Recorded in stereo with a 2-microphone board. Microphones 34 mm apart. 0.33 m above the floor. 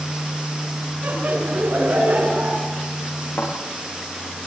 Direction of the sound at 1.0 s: 55° right (ahead or behind).